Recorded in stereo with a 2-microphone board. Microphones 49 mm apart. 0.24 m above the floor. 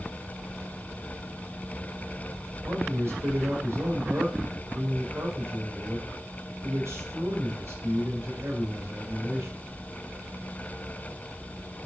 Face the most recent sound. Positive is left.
turn(degrees=-55)  # may be behind; listen again after turning